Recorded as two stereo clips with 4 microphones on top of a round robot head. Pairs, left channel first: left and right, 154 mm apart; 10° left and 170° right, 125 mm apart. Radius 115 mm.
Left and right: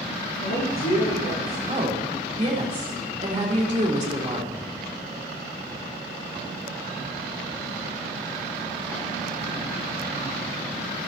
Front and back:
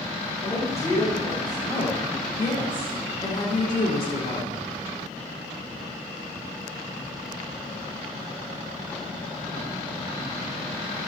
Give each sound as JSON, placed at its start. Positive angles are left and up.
{"t": 0.4, "sound": "a man speaking", "azimuth_deg": 75, "distance_m": 6.0}
{"t": 1.7, "sound": "a woman speaking", "azimuth_deg": -35, "distance_m": 3.0}